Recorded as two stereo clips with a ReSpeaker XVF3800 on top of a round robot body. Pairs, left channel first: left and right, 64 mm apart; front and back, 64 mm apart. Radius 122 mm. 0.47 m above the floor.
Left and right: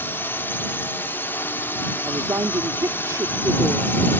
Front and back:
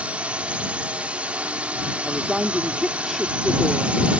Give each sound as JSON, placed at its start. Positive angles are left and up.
{"t": 0.0, "sound": "a drone", "azimuth_deg": 120}
{"t": 2.0, "sound": "a woman speaking", "azimuth_deg": -90}